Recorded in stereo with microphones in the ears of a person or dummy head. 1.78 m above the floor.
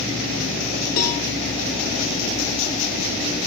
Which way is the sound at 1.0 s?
50° left (ahead or behind).